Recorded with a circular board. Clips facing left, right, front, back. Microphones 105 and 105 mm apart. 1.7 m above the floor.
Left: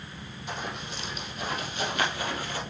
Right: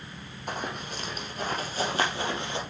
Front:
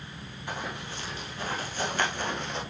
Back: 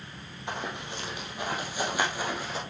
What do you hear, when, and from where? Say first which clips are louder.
0.5 s running footsteps: right 2 dB, back 1 dB; 115° right, 3 m; by 2.6 s 95° right, 1.8 m